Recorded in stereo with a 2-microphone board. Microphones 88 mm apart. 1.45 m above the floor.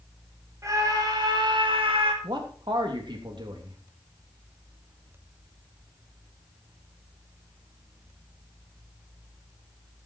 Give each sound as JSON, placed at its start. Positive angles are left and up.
{"t": 0.6, "sound": "a scream", "side_deg": -35, "distance_m": 2.5}
{"t": 2.2, "sound": "a man speaking", "side_deg": -60, "distance_m": 3.0}